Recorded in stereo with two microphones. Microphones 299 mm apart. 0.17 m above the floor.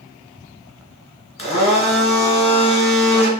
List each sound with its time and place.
1.4 s a blender: 20° left (ahead or behind), 0.9 m